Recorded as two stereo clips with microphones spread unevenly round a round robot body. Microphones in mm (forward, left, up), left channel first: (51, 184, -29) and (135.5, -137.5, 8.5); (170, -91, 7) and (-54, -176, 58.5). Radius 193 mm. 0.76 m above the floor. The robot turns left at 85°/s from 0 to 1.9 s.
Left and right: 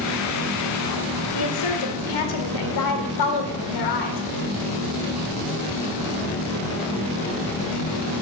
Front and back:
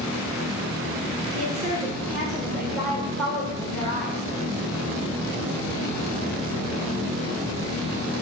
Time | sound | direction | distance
1.3 | a woman speaking | 155° left | 2 m